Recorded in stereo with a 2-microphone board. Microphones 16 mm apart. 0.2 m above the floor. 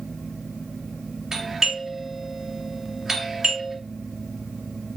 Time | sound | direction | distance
1.3 | a doorbell | 25° right (ahead or behind) | 2 m